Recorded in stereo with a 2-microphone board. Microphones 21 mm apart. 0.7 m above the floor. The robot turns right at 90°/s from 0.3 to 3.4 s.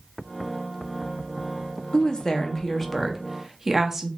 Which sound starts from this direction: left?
A woman speaking, at 1.9 s.